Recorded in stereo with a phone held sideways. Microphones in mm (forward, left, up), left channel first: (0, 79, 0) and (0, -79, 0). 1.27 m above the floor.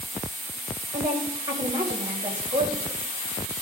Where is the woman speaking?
30° right (ahead or behind), 4.5 m.